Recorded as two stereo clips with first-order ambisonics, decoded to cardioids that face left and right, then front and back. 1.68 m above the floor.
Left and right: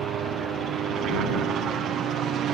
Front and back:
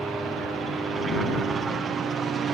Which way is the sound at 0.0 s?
100° right.